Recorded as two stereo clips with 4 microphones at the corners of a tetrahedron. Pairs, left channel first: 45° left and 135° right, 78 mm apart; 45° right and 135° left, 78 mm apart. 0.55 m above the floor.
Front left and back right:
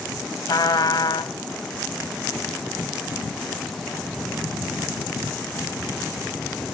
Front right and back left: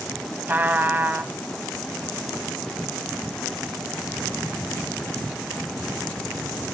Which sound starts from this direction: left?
A trumpet, at 0.5 s.